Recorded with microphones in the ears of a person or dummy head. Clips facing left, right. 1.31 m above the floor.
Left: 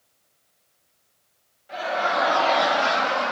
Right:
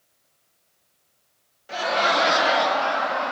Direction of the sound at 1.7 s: 65° right (ahead or behind).